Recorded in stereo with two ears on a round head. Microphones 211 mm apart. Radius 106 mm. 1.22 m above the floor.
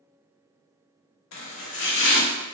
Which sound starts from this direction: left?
Chopping, at 1.3 s.